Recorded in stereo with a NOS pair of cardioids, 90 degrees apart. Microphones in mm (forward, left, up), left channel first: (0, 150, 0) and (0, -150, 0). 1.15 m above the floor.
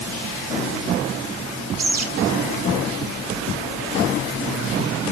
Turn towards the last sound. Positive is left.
turn(degrees=-50)